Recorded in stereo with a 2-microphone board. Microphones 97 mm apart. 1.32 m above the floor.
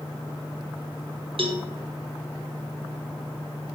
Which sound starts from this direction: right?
A cowbell, at 1.4 s.